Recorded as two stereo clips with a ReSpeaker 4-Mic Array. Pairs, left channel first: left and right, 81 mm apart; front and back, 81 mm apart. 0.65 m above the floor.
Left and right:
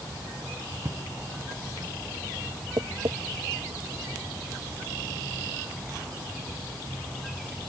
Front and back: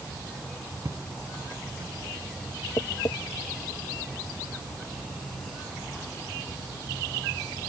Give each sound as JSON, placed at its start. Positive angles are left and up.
{"t": 0.8, "sound": "footsteps", "azimuth_deg": -140}
{"t": 2.8, "sound": "tapping", "azimuth_deg": -55}